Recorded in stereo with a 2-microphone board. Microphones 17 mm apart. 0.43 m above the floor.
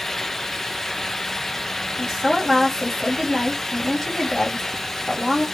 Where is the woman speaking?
20° left (ahead or behind), 1.4 m.